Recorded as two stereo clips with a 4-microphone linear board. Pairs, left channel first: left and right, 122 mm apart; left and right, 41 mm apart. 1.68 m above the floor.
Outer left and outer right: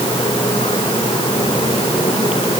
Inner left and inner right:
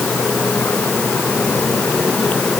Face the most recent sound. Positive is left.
No sound to turn to.